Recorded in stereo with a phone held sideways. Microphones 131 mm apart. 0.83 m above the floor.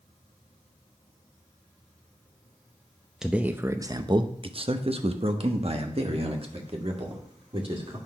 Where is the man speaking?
5° right (ahead or behind), 0.6 m; by 8.0 s 45° right (ahead or behind), 2.5 m.